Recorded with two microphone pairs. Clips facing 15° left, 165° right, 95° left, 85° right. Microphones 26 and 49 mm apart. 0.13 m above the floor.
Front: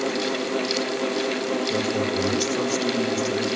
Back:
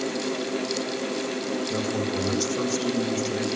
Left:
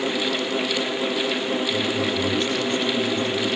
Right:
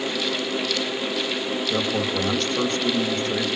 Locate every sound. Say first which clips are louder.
1.7 s a man speaking: front 3 dB, even; 60° right, 7.5 m